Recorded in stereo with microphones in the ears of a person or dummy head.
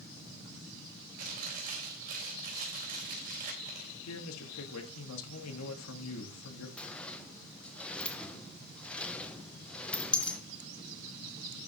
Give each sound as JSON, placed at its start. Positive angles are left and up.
{"t": 1.2, "sound": "chewing", "side_deg": -45, "distance_m": 3.5}
{"t": 4.0, "sound": "a man speaking", "side_deg": 85, "distance_m": 2.0}
{"t": 6.8, "sound": "a sliding door", "side_deg": 10, "distance_m": 1.0}